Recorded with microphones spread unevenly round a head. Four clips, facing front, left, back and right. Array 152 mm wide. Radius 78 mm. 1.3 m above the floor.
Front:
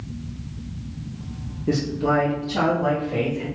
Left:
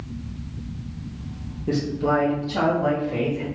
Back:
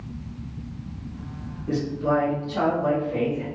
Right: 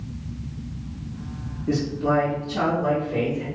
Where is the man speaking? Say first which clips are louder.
Even, front 2 dB; 20° left, 0.7 m; by 3.5 s 60° left, 1.4 m.